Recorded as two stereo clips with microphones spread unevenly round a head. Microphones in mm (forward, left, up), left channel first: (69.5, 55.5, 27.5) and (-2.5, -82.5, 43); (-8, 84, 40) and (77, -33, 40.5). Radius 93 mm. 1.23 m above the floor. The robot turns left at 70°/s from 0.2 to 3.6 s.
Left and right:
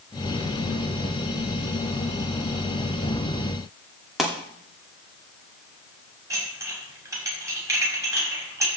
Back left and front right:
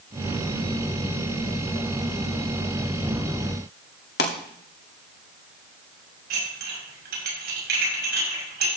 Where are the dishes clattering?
45° right, 5.5 m.